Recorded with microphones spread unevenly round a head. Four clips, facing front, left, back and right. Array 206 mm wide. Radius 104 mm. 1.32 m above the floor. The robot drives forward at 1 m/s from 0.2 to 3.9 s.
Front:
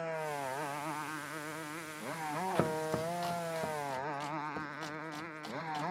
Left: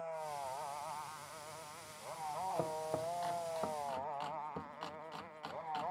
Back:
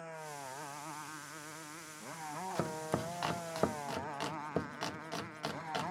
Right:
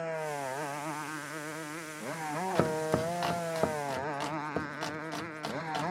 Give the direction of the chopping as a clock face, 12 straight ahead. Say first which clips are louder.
Right 13 dB, front 3 dB; 2 o'clock.